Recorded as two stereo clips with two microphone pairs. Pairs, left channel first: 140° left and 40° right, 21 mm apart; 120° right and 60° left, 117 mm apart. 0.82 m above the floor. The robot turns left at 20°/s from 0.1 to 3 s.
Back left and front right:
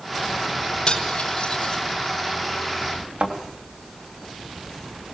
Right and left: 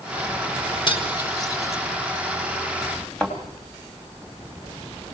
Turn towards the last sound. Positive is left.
turn(degrees=-35)